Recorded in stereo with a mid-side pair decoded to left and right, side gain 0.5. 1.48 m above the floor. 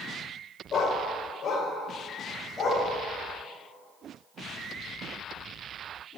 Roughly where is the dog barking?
Ahead left.